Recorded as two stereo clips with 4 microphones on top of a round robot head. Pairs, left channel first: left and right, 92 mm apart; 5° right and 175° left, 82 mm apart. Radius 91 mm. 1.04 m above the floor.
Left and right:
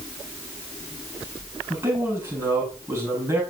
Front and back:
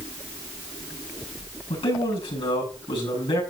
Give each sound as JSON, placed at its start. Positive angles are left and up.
{"t": 1.7, "sound": "a man speaking", "azimuth_deg": -20, "distance_m": 8.5}